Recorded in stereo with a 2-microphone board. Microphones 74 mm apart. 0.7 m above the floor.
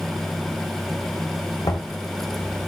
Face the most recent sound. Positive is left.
turn(degrees=65)  # may be behind; listen again after turning